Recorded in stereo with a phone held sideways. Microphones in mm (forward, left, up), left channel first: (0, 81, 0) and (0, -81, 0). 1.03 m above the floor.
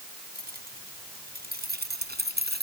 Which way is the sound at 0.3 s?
70° right (ahead or behind).